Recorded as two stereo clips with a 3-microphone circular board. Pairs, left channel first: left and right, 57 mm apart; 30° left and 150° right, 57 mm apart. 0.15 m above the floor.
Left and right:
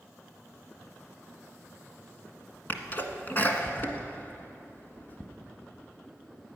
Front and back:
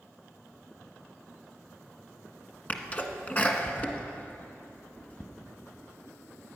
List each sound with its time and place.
2.7 s a sneeze: 65° left, 1.5 m